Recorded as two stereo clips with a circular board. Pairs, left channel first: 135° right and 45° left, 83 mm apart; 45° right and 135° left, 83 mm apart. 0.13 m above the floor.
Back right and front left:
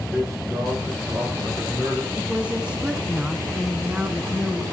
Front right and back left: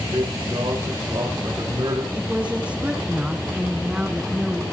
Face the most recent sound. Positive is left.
turn(degrees=95)